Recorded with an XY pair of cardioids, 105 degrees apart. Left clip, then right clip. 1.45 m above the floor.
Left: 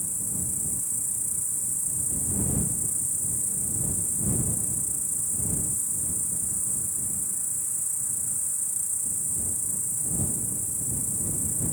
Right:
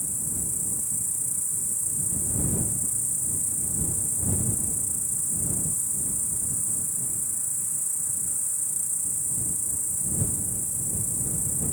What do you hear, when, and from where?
0.0 s an insect: straight ahead